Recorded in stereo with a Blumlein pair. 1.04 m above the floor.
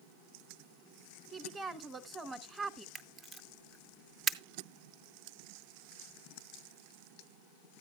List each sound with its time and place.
1.3 s a woman speaking: 10° right, 0.9 m
3.0 s a camera shutter: 20° right, 0.6 m